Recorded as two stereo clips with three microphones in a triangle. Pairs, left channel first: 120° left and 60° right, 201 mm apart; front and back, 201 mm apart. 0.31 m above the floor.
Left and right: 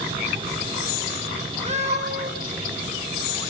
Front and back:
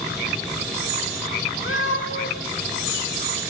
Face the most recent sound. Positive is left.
turn(degrees=-5)